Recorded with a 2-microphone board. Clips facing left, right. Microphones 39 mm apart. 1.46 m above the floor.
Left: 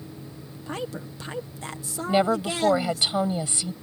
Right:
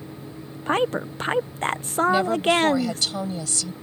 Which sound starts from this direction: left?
A woman speaking, at 2.1 s.